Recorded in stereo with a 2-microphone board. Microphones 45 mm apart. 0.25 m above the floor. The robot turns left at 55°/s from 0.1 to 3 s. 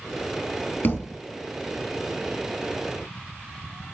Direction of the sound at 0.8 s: 60° left (ahead or behind).